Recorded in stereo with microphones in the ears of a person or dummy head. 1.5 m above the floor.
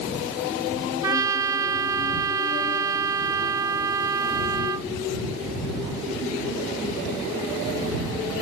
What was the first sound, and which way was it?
A trumpet, 20° right (ahead or behind).